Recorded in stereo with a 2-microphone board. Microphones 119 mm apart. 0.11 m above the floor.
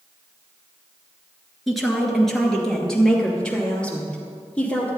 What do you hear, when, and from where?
1.7 s a woman speaking: centre (ahead or behind), 1.7 m; by 4.9 s 10° left (ahead or behind), 3 m